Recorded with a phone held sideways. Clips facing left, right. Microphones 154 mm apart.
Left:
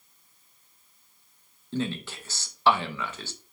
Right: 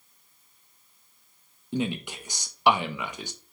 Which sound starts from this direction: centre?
A man speaking, at 1.7 s.